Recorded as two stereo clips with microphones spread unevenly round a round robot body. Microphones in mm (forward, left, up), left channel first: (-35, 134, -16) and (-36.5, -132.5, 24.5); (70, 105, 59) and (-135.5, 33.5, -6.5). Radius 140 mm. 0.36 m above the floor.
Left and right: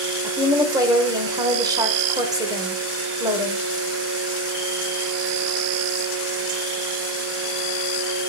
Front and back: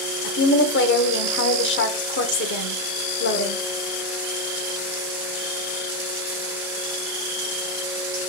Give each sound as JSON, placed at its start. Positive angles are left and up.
{"t": 0.2, "sound": "a woman speaking", "azimuth_deg": -10, "distance_m": 1.2}